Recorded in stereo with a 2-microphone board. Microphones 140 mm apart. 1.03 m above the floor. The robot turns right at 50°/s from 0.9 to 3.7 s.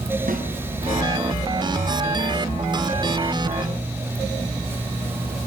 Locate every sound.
0.3 s a snare drum: 75° right (ahead or behind), 4.5 m